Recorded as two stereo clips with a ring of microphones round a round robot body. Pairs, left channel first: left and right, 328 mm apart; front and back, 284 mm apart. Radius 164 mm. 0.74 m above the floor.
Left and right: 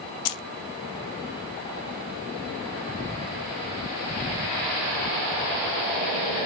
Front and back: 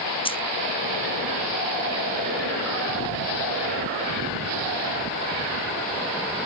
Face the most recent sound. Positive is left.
turn(degrees=70)